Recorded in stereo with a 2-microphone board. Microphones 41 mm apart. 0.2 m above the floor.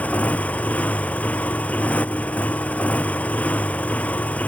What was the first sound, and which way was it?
A motorcycle, 35° left (ahead or behind).